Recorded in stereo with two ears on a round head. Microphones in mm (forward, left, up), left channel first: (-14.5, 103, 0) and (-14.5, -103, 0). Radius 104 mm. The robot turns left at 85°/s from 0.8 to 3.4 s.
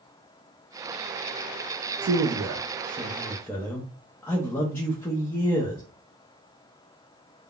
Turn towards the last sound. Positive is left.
turn(degrees=170)